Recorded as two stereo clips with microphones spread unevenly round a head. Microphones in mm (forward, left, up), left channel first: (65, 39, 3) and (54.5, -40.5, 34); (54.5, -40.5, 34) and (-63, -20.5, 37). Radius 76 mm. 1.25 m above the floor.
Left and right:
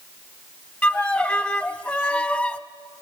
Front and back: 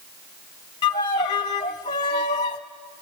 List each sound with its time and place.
0.8 s a violin: 15° right, 0.9 m